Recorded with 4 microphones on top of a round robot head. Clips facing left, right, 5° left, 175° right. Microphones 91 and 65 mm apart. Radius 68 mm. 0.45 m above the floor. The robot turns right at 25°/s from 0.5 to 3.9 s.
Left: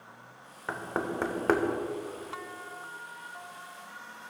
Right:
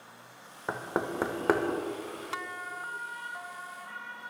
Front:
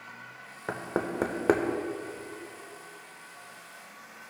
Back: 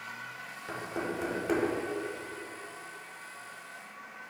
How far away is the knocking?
About 1.0 m.